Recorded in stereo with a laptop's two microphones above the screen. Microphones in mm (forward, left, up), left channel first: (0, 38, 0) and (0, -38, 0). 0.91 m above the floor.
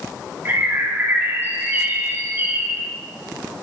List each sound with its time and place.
0.5 s a bird: 30° right (ahead or behind), 1.3 m